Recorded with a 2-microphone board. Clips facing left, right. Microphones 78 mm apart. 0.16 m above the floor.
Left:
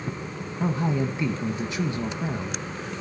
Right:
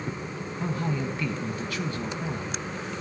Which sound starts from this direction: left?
A man speaking, at 0.6 s.